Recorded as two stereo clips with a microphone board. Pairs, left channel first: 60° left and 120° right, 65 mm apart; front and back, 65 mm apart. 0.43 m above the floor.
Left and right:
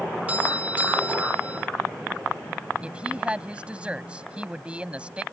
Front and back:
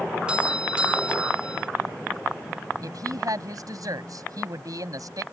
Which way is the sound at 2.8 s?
170° left.